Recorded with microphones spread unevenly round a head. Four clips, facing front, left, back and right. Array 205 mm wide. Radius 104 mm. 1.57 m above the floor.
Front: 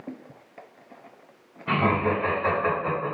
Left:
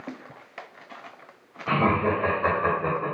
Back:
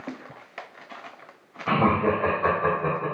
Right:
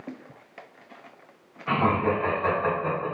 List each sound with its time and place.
1.7 s laughter: 165° left, 1.6 m; by 3.1 s 120° left, 1.1 m